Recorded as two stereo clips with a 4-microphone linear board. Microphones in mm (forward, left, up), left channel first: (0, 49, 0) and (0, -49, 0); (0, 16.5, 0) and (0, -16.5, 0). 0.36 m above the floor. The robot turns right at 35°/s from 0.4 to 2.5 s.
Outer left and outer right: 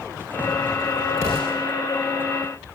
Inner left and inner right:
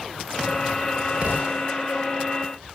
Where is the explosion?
35° right (ahead or behind), 9 m; by 1.6 s 20° right (ahead or behind), 9 m.